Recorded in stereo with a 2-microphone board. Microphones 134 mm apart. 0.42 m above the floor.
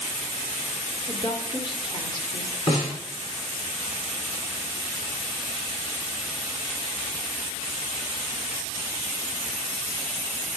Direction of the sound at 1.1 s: 40° left (ahead or behind).